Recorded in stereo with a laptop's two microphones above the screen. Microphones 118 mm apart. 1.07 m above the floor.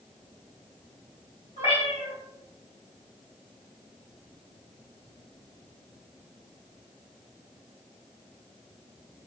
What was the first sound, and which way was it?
A cat meowing, 60° left (ahead or behind).